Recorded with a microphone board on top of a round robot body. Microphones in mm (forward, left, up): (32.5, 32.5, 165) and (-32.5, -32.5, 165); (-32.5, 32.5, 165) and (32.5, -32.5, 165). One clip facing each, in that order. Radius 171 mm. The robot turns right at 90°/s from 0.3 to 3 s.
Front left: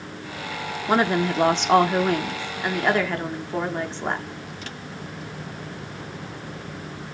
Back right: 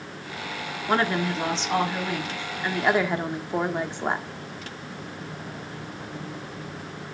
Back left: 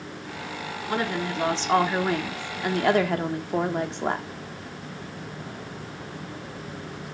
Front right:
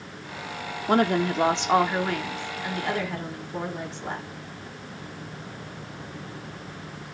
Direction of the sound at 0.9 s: 40° right.